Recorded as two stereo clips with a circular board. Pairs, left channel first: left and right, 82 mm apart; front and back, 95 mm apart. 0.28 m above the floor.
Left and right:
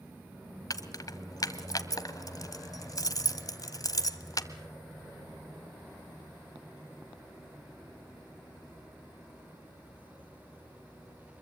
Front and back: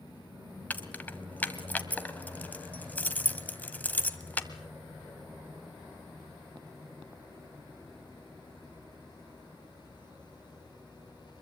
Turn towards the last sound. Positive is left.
turn(degrees=70)